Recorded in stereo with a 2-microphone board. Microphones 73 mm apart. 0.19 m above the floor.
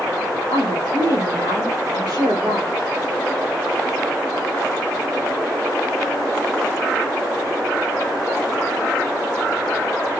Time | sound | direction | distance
0.5 | a woman speaking | 75° right (ahead or behind) | 6.5 m